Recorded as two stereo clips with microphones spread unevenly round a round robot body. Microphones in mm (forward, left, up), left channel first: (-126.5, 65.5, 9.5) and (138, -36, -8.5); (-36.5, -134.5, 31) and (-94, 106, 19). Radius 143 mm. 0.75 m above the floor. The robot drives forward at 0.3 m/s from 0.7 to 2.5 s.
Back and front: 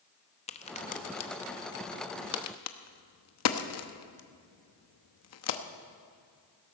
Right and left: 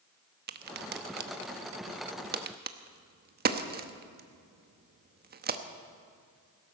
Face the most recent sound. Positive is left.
turn(degrees=140)